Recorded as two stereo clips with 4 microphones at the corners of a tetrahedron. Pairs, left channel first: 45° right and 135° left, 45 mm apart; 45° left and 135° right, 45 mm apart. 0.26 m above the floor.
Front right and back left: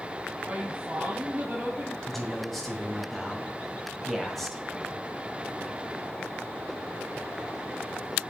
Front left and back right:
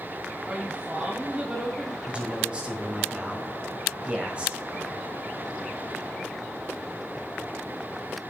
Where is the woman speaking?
170° left, 1.2 m.